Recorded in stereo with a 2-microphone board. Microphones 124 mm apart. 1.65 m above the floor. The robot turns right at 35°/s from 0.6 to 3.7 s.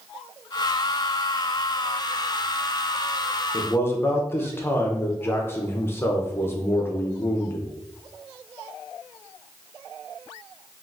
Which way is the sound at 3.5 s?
20° left (ahead or behind).